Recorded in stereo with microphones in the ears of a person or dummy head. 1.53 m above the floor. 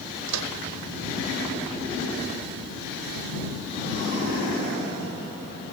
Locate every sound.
0.3 s a microwave: 80° right